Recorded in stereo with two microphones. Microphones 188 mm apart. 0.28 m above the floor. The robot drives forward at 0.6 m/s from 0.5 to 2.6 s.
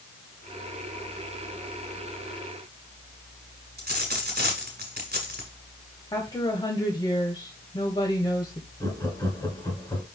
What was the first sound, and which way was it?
A dropped coin, 55° right (ahead or behind).